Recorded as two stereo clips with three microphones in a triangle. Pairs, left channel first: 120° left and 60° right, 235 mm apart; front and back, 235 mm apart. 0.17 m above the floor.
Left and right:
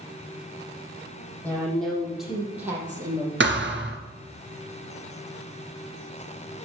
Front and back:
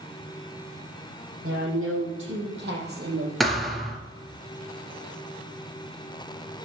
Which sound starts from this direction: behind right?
A woman speaking, at 1.4 s.